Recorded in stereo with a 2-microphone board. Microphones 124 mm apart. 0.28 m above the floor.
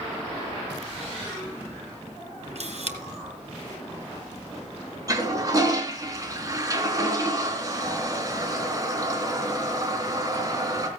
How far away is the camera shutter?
About 3 m.